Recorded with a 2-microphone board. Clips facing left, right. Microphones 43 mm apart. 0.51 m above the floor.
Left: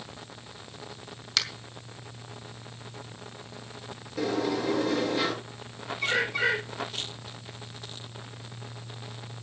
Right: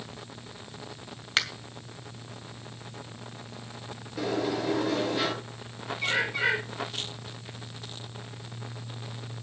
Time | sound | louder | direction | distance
1.4 | a finger snap | right 3 dB | 35° right (ahead or behind) | 2 m
4.2 | a sliding door | left 1 dB | 5° right (ahead or behind) | 8.5 m
6.0 | a bird | left 1 dB | 10° right (ahead or behind) | 7.5 m